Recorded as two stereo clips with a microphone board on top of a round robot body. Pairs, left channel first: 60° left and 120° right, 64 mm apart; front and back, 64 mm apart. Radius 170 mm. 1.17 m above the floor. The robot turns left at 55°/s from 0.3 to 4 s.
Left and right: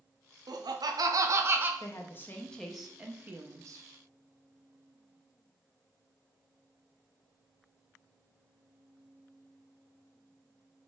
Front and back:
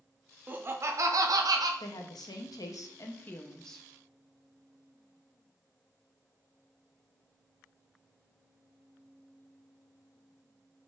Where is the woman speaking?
20° left, 0.6 m; by 3.9 s 90° right, 0.6 m.